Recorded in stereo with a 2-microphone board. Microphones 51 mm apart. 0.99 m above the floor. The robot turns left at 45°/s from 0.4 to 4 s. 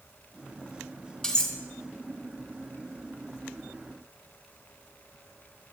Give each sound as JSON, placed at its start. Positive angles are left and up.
{"t": 1.2, "sound": "cutlery clinking", "side_deg": 15, "distance_m": 1.7}